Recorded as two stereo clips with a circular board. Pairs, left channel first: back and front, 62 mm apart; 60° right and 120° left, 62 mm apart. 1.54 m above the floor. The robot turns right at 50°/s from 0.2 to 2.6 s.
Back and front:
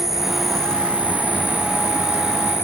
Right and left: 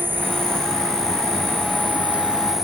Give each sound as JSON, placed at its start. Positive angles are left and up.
{"t": 0.0, "sound": "an insect", "azimuth_deg": 80}